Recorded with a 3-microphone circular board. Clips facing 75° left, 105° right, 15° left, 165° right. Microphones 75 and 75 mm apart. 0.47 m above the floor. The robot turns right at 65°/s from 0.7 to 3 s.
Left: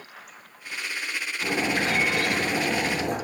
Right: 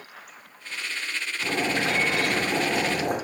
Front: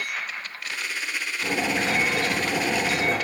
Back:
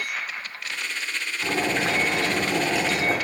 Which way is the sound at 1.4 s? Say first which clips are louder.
Even, back 1 dB; 150° left.